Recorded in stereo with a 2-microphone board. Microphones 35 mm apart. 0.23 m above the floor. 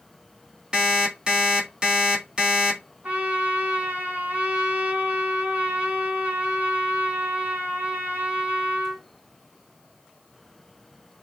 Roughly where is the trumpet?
Right.